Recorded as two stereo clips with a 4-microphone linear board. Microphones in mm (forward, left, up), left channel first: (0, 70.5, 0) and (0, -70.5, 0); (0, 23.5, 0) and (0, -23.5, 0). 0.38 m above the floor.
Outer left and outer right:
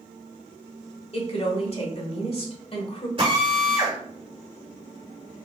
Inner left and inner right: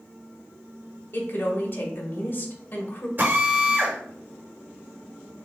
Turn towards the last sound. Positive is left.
turn(degrees=-40)  # may be behind; listen again after turning